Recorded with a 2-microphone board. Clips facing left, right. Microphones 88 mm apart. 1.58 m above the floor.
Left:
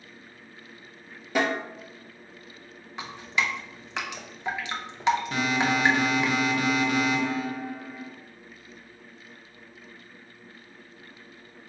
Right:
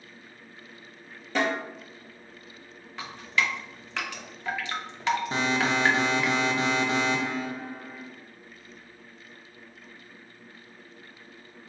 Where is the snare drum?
10° left (ahead or behind), 1.6 m.